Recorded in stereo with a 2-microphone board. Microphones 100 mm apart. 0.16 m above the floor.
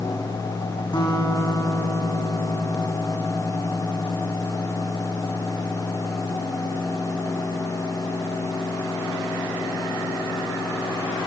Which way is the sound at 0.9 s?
55° left (ahead or behind).